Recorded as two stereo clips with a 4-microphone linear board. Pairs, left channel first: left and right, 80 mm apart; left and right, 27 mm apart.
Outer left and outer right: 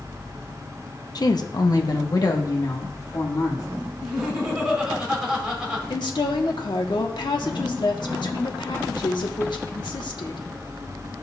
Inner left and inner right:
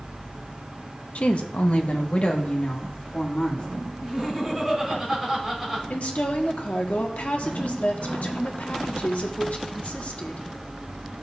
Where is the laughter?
10° right (ahead or behind), 4.5 m.